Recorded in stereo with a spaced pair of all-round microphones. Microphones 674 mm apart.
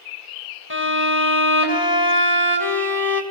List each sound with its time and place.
0.7 s a violin: 35° left (ahead or behind), 2.5 m